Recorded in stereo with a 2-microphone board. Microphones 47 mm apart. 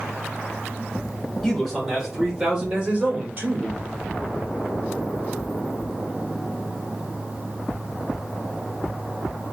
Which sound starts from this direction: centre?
A man speaking, at 1.4 s.